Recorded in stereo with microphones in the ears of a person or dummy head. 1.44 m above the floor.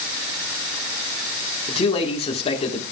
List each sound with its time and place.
1.7 s a man speaking: 30° left (ahead or behind), 1.3 m